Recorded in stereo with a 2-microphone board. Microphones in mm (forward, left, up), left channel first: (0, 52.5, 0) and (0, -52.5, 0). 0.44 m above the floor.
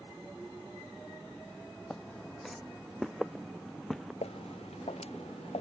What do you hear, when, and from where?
1.9 s footsteps: 5° left (ahead or behind); by 4.1 s centre (ahead or behind)
4.2 s footsteps: 80° left